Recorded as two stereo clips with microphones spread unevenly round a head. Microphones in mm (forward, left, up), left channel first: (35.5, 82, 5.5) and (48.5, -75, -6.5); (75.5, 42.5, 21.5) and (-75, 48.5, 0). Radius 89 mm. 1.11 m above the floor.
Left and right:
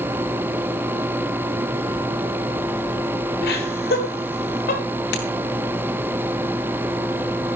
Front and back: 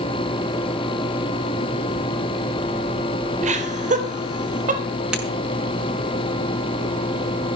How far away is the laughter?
About 3.5 m.